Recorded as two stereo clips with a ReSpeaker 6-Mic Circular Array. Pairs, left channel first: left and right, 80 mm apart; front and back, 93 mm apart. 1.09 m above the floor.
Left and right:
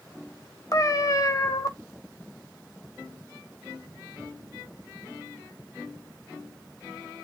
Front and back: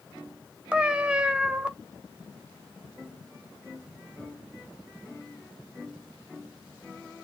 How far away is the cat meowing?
About 0.8 m.